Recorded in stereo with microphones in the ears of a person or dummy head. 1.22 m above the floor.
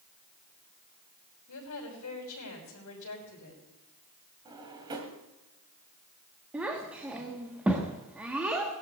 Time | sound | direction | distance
1.5 | a woman speaking | 80° left | 5 m
4.5 | a drawer | 25° right (ahead or behind) | 2 m
6.5 | a child speaking | 10° right (ahead or behind) | 1.3 m